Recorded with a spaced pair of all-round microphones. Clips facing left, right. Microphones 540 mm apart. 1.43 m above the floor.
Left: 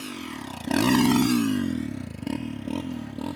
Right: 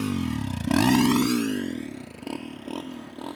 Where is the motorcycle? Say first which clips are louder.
Right 9 dB; 80° right; by 3.4 s 45° left (ahead or behind).